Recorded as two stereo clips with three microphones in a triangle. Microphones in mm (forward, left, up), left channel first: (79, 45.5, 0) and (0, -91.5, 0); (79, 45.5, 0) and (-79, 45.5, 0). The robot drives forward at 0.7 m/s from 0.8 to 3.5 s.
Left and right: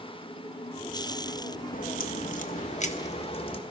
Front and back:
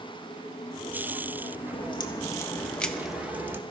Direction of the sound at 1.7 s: 50° left.